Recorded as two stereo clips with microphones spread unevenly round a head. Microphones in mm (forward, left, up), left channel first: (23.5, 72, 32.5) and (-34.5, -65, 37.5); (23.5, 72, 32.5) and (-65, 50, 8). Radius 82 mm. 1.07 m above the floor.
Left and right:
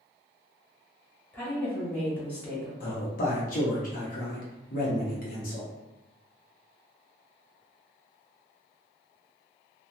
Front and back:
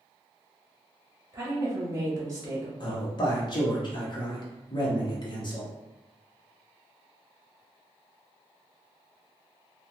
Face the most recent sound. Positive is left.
turn(degrees=55)